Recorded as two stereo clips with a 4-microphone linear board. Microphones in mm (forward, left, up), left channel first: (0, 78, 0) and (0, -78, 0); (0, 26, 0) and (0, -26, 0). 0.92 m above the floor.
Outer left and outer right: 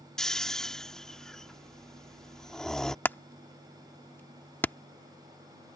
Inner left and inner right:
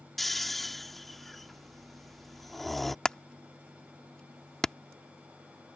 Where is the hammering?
10° left (ahead or behind).